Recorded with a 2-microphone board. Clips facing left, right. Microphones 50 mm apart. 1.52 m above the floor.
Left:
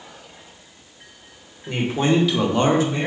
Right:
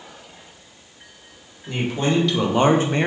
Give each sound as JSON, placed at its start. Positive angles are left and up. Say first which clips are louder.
{"t": 1.7, "sound": "a man speaking", "louder": "left 2 dB", "side_deg": 30, "distance_m": 1.2}